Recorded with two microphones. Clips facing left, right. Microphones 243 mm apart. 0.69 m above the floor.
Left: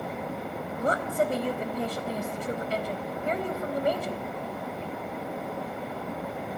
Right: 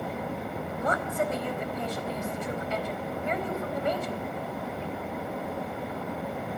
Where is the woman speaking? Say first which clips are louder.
Left 3 dB; 35° left (ahead or behind), 4 m.